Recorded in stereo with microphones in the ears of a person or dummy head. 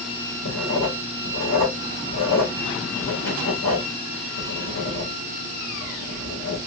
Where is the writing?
60° left (ahead or behind), 1.7 m.